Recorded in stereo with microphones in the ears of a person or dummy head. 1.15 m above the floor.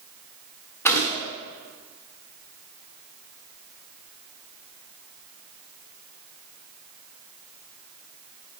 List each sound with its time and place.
0.8 s a gunshot: 15° left (ahead or behind), 1.4 m